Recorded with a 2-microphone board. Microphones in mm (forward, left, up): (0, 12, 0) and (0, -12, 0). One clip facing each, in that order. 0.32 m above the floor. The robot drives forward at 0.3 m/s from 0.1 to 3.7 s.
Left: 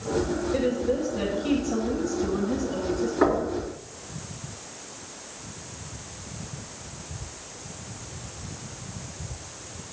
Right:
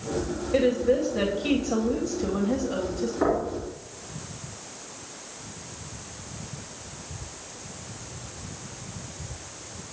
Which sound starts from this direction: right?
A woman speaking, at 0.5 s.